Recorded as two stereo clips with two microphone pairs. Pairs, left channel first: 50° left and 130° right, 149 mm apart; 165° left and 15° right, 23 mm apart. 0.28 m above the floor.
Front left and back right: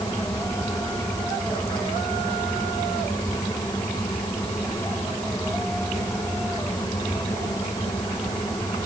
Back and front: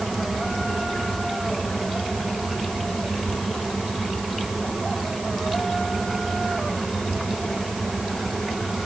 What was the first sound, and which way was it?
Only background noise.